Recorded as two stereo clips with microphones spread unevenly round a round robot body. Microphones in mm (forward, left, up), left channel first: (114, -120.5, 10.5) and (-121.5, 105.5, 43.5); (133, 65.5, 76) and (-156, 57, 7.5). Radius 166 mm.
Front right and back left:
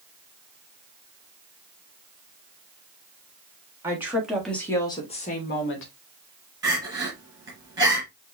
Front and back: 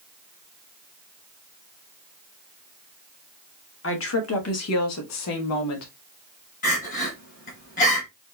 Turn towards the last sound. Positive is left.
turn(degrees=60)